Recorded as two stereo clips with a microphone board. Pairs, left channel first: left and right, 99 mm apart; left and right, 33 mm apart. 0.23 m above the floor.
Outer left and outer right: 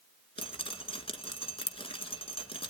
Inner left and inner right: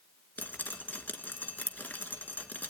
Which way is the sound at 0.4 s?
65° left (ahead or behind).